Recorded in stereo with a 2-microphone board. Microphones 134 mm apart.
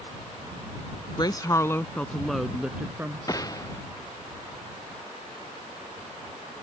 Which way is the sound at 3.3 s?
25° left (ahead or behind).